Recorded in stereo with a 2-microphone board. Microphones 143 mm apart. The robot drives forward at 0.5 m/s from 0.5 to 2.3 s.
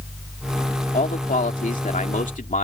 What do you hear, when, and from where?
0.9 s a man speaking: 85° left; by 2.6 s 75° left (ahead or behind)